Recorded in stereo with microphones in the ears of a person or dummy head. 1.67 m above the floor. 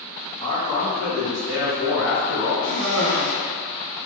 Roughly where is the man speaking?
Left.